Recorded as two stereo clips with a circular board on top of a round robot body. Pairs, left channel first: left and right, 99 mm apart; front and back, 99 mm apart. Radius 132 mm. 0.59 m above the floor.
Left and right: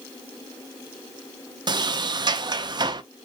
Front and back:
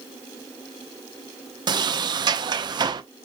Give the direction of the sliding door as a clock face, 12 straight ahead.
4 o'clock.